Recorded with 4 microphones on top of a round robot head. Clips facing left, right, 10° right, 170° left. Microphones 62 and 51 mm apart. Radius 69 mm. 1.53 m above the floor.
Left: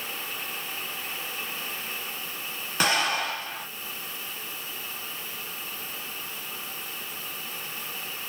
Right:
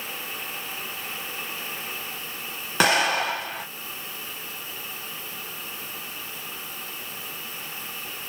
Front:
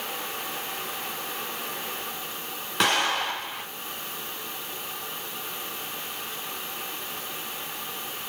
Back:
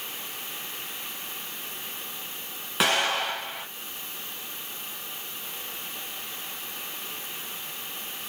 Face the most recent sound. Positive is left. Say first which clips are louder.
# right 4 dB, front 1 dB
turn(degrees=-105)